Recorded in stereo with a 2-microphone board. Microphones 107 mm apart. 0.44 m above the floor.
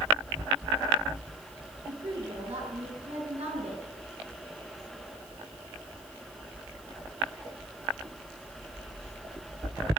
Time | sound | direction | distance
1.9 | a woman speaking | 75° right (ahead or behind) | 6.5 m